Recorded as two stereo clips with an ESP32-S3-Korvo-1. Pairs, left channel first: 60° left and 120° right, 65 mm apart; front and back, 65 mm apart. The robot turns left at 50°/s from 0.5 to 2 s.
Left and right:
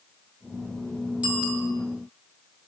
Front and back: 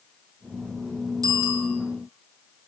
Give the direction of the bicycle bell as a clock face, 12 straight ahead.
6 o'clock.